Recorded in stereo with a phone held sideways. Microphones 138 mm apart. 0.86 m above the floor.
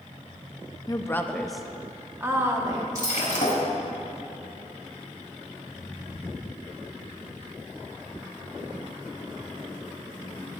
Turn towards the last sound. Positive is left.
turn(degrees=65)  # may be behind; listen again after turning